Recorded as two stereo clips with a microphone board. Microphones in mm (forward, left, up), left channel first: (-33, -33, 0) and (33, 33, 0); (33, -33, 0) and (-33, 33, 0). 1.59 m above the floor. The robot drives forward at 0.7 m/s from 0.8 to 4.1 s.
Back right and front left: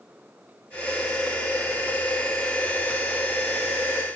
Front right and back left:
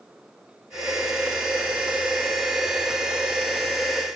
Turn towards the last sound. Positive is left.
No sound to turn to.